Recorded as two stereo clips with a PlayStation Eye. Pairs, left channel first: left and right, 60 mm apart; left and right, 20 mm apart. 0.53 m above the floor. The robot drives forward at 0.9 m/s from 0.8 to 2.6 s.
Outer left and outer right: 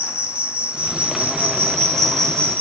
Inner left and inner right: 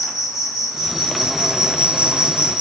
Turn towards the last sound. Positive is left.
turn(degrees=-40)  # may be behind; listen again after turning